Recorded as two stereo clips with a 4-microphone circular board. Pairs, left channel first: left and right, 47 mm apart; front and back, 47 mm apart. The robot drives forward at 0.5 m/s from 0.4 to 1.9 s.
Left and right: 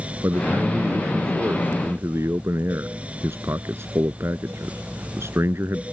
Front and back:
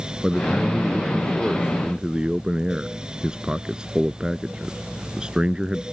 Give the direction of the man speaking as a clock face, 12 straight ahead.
3 o'clock.